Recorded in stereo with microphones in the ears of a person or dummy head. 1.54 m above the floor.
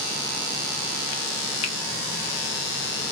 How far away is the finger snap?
About 0.6 m.